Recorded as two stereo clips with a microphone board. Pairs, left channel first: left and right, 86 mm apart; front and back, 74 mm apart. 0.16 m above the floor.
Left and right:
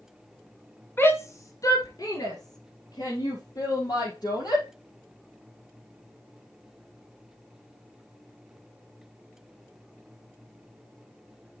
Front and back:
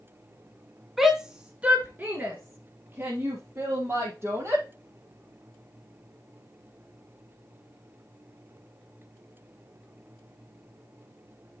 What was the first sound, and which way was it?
A shout, 95° left.